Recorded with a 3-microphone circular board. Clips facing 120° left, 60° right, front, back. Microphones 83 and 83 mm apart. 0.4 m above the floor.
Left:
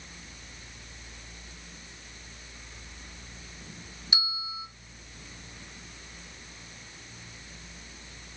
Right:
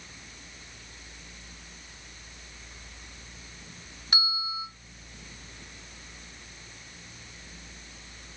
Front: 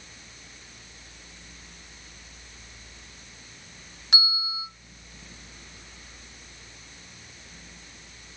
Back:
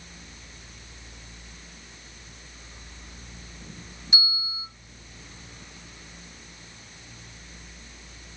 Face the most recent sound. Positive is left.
turn(degrees=-20)